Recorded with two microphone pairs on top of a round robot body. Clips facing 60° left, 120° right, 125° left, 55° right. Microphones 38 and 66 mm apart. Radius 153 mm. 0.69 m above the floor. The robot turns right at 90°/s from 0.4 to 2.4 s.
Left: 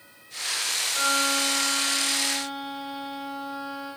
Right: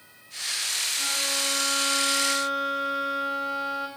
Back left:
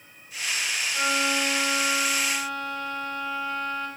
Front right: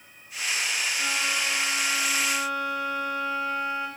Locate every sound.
0.9 s a violin: 95° left, 4.5 m; by 3.9 s 130° right, 4.5 m